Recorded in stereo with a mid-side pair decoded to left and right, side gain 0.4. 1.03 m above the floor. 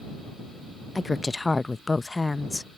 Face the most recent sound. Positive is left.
turn(degrees=20)